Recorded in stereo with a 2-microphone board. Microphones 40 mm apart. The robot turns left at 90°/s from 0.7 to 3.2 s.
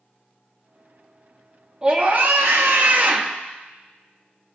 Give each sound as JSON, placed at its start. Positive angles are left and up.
{"t": 1.8, "sound": "a scream", "azimuth_deg": -25, "distance_m": 1.2}